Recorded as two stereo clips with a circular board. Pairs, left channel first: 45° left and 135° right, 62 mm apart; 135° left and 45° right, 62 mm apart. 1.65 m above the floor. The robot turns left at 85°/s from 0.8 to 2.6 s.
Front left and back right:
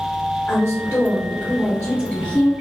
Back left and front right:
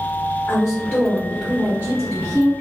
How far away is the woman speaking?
About 0.7 m.